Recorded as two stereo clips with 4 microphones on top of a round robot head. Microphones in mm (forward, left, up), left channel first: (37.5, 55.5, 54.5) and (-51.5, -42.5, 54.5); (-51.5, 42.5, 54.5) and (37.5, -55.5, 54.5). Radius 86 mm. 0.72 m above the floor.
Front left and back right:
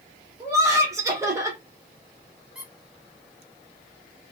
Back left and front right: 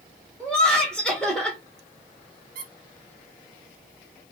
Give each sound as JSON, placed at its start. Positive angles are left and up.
{"t": 0.4, "sound": "laughter", "azimuth_deg": -150, "distance_m": 1.2}
{"t": 2.5, "sound": "a squeak", "azimuth_deg": -45, "distance_m": 0.8}